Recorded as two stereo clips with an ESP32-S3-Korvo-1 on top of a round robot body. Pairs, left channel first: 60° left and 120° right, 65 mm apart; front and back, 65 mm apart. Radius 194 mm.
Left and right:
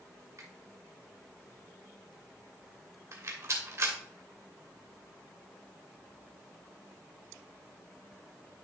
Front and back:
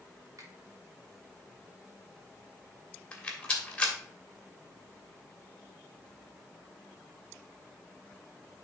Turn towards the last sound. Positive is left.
turn(degrees=-80)